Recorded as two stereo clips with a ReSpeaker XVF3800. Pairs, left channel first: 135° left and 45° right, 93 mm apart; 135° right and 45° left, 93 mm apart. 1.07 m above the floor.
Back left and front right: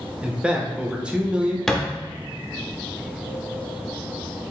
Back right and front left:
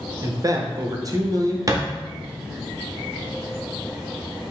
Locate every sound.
0.2 s a man speaking: 30° left, 0.5 m
1.7 s a thud: 55° left, 0.5 m